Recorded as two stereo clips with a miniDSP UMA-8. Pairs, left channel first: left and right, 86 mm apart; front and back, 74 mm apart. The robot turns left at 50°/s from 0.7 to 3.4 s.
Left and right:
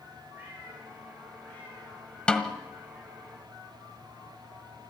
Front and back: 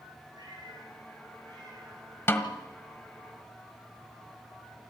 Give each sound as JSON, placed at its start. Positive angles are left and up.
{"t": 0.3, "sound": "a cat meowing", "azimuth_deg": -155, "distance_m": 8.5}
{"t": 2.3, "sound": "a snare drum", "azimuth_deg": 20, "distance_m": 1.4}